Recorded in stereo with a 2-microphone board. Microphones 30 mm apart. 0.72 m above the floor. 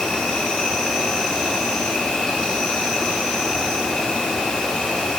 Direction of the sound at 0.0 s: 30° left (ahead or behind).